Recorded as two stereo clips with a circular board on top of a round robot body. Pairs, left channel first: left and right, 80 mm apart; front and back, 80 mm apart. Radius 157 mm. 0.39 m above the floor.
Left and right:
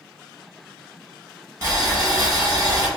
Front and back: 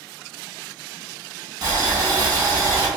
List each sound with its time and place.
1.6 s boiling: 150° right, 1.7 m